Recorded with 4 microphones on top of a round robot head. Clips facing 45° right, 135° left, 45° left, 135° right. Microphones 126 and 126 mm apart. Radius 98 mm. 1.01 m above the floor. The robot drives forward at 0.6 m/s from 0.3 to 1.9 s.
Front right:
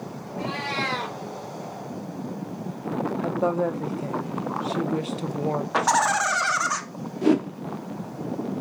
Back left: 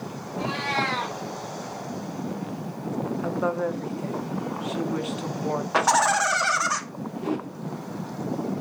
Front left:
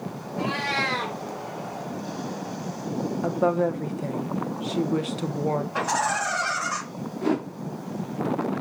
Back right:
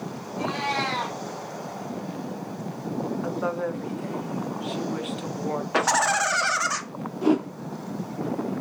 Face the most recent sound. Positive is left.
turn(degrees=-55)